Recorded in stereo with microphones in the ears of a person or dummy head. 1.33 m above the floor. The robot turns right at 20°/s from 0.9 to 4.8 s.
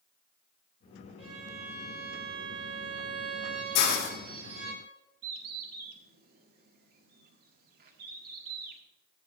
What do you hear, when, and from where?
1.2 s a violin: 155° right, 4 m; by 4.8 s 85° right, 4 m
3.8 s a hiss: 70° left (ahead or behind), 1.6 m
5.2 s a bird: 45° right (ahead or behind), 0.8 m